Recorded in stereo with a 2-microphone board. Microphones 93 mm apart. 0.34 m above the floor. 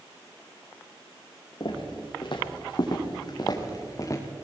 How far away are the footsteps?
About 6 m.